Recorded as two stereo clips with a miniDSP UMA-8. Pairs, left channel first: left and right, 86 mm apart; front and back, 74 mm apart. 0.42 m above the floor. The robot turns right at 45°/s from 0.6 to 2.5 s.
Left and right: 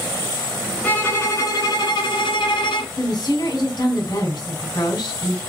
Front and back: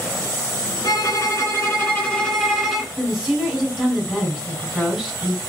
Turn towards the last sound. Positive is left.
turn(degrees=85)